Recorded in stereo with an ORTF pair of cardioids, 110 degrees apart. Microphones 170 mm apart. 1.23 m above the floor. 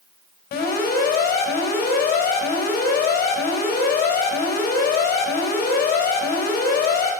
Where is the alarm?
65° left, 5 m.